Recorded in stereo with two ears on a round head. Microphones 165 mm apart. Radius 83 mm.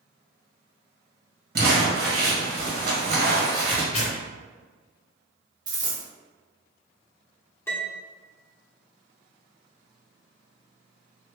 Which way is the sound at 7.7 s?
15° left (ahead or behind).